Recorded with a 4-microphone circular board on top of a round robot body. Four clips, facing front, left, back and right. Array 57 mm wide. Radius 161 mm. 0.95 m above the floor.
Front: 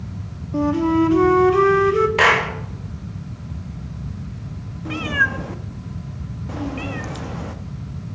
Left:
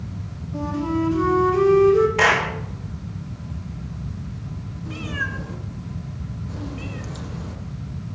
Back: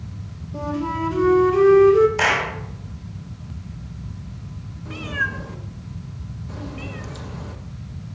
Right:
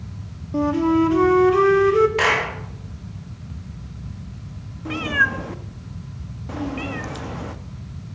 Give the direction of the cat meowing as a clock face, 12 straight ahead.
2 o'clock.